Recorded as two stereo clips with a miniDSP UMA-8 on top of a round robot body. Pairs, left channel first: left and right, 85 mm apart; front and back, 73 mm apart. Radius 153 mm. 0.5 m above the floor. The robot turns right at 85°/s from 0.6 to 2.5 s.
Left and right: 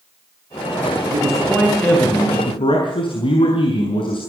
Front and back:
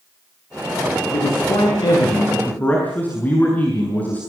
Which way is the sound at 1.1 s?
50° right.